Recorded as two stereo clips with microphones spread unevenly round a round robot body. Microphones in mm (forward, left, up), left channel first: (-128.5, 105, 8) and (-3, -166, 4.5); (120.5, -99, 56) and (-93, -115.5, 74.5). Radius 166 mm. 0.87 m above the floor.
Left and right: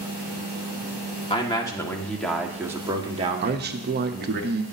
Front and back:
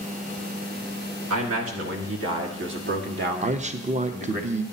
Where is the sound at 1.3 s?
175° right, 2.0 m; by 4.4 s 115° right, 2 m.